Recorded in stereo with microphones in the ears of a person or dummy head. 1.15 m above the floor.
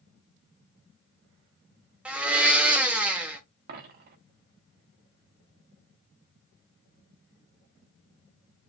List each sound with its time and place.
2.0 s a blender: 10° right (ahead or behind), 0.7 m
3.7 s a dropped coin: 55° right (ahead or behind), 0.9 m